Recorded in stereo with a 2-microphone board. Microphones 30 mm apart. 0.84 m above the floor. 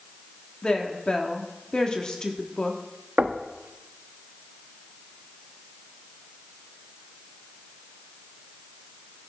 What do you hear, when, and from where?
0.6 s a woman speaking: 30° left (ahead or behind), 1.4 m
3.2 s knocking: 75° right (ahead or behind), 0.7 m